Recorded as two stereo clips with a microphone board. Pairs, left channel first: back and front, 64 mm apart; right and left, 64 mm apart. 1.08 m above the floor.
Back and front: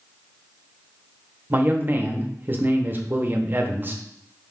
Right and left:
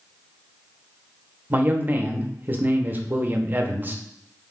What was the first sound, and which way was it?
A man speaking, 45° left.